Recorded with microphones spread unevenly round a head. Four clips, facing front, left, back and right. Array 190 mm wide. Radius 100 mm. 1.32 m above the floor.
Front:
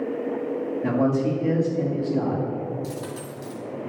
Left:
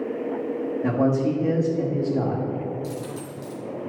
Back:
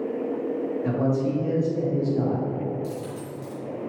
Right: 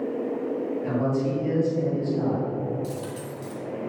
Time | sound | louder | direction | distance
0.8 | a man speaking | left 5 dB, front 4 dB | 50° left | 2 m
2.8 | a dropped coin | left 1 dB, even | 5° right | 1.6 m